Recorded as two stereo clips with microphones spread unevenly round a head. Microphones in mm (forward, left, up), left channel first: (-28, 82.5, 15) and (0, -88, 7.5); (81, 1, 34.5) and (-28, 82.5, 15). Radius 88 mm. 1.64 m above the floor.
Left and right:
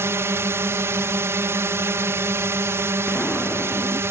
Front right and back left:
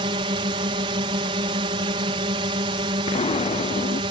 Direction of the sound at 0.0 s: 155° right.